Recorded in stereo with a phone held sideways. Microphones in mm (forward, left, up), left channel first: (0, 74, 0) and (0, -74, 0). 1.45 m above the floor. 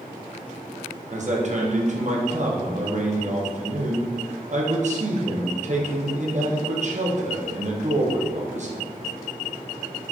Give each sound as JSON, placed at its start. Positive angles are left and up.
{"t": 1.1, "sound": "a man speaking", "side_deg": -55, "distance_m": 0.8}